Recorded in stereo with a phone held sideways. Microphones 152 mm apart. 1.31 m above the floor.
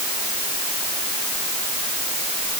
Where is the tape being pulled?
I don't hear tape being pulled.